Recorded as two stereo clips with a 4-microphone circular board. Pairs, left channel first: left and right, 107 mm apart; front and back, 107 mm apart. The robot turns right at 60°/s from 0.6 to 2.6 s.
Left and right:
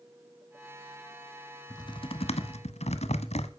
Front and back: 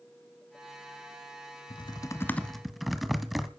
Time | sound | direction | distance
1.7 | typing on a keyboard | 35° left | 0.9 m